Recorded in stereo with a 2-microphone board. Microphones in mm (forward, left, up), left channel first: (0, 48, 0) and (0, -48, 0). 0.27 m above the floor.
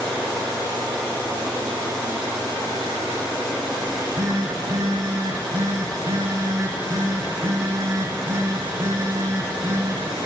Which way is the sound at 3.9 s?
35° right (ahead or behind).